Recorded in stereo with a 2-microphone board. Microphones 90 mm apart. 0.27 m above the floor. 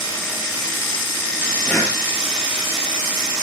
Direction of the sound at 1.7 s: 20° left (ahead or behind).